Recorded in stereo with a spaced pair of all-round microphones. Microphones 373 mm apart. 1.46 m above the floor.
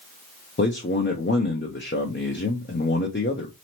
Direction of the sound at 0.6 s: 30° left (ahead or behind).